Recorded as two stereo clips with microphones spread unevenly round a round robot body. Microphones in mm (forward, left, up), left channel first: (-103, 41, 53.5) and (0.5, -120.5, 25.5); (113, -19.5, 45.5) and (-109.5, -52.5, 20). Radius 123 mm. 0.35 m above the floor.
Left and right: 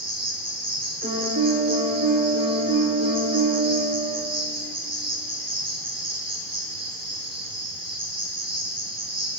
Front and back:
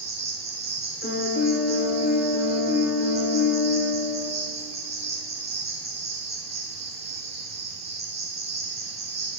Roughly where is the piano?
Ahead right.